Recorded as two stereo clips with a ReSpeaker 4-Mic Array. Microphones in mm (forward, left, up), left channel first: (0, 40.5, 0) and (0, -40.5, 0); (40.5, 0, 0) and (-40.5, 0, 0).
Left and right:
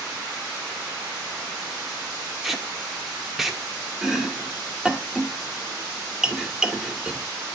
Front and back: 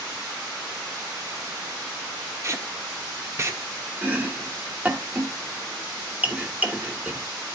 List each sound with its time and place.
2.4 s tape being pulled: 175° right, 1.2 m
4.0 s chopping: 160° right, 1.3 m